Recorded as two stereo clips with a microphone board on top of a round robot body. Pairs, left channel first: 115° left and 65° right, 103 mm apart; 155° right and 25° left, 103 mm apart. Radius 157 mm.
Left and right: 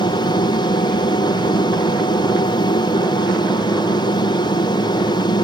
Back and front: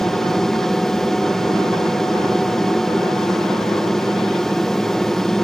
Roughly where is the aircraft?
Behind left.